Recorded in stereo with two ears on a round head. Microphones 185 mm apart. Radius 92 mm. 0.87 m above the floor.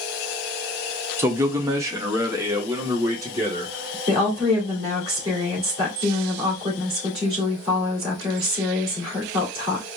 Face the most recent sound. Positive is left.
turn(degrees=-25)  # may be behind; listen again after turning